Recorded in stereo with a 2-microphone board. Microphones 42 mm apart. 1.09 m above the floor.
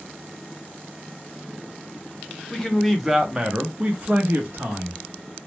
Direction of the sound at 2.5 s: 10° left (ahead or behind).